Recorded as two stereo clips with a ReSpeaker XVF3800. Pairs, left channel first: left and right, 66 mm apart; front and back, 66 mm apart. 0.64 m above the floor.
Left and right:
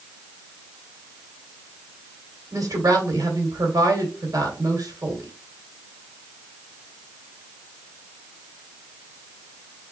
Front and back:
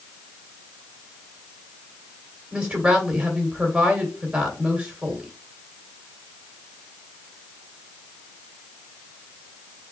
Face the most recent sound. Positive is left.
turn(degrees=-105)